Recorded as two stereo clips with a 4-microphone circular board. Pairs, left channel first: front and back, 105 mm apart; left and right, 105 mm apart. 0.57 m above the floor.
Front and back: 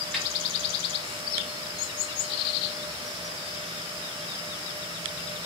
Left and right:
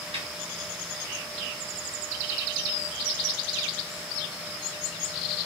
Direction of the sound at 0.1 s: 80° right.